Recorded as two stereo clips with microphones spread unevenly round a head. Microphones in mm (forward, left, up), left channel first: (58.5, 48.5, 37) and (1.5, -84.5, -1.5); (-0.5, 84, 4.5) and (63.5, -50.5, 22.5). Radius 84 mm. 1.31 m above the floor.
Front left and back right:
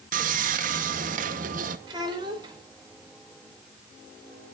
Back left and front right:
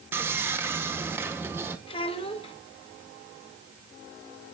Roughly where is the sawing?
Behind right.